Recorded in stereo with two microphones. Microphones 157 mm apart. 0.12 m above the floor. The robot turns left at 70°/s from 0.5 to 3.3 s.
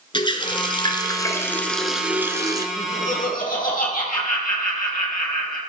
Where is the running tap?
95° left, 0.9 m; by 2.7 s 55° right, 0.9 m.